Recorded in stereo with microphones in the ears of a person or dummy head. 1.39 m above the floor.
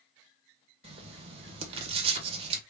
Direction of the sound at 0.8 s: 30° right (ahead or behind).